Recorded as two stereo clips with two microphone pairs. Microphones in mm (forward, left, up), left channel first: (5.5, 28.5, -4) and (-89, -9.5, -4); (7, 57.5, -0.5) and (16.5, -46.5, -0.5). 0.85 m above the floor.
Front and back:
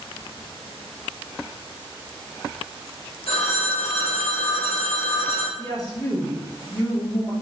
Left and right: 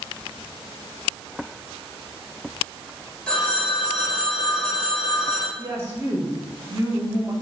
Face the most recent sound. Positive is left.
turn(degrees=-25)